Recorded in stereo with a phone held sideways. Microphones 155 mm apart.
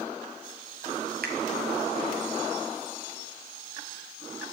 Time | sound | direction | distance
1.2 | a finger snap | 80° right | 1.0 m